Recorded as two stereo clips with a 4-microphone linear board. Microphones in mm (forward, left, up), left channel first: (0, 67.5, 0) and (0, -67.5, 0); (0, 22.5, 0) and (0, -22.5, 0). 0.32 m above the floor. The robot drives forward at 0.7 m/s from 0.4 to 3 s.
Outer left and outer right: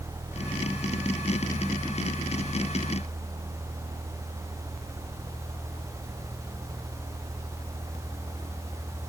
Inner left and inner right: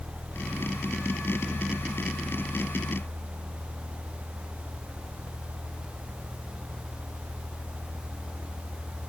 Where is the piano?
I don't hear a piano.